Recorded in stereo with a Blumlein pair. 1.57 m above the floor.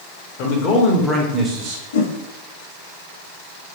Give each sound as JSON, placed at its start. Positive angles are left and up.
{"t": 0.4, "sound": "a man speaking", "azimuth_deg": 45, "distance_m": 1.1}
{"t": 1.9, "sound": "a whoosh", "azimuth_deg": 60, "distance_m": 0.6}